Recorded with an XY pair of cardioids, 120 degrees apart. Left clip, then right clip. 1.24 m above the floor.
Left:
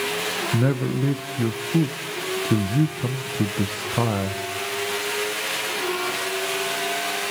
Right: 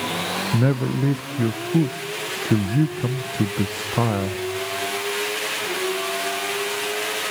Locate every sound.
0.5 s a man speaking: 10° right, 0.6 m